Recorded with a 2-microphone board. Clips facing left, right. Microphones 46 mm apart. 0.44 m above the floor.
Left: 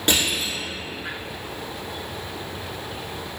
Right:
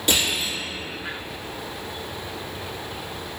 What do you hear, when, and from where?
0.1 s crushing: 45° left (ahead or behind), 1.9 m